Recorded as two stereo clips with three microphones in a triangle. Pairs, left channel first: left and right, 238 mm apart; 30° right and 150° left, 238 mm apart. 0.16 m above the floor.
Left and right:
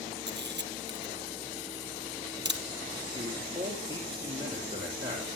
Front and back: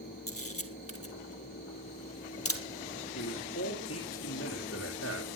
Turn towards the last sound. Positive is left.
turn(degrees=-15)